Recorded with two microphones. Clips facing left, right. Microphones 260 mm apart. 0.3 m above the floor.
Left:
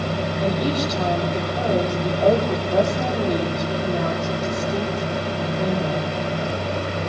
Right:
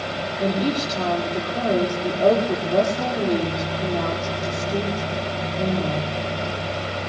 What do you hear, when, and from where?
0.4 s a woman speaking: 30° right (ahead or behind), 9.5 m